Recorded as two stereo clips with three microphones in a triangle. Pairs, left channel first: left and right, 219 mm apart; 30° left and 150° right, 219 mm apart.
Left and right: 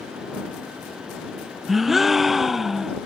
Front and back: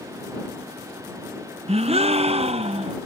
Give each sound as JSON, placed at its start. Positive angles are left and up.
{"t": 1.7, "sound": "a gasp", "azimuth_deg": 180}